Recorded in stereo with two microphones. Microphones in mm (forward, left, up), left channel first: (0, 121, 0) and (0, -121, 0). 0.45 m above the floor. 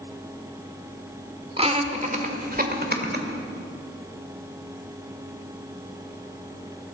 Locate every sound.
1.6 s laughter: 25° right (ahead or behind), 1.3 m; by 3.2 s 40° right (ahead or behind), 1.9 m